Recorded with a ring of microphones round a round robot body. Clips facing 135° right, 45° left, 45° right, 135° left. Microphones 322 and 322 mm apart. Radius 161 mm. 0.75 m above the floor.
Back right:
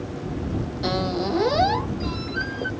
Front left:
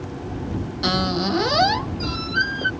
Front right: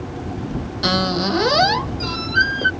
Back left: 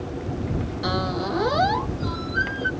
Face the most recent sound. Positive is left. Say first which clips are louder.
# front left 2 dB, front right 7 dB
turn(degrees=-10)